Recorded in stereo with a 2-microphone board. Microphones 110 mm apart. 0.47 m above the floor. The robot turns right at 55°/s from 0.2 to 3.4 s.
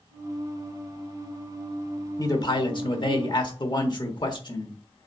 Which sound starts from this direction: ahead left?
A man speaking, at 2.2 s.